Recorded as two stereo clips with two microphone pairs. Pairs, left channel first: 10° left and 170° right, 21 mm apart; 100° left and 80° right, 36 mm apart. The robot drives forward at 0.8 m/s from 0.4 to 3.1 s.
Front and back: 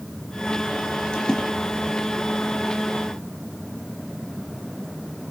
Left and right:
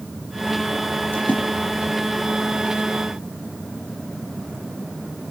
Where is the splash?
65° left, 7.5 m.